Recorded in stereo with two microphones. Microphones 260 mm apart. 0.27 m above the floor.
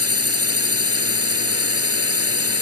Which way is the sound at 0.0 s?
65° right (ahead or behind).